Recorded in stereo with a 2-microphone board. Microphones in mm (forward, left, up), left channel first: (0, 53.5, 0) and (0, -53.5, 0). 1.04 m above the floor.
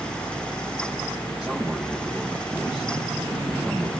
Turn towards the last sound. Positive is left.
turn(degrees=-10)  # may be behind; listen again after turning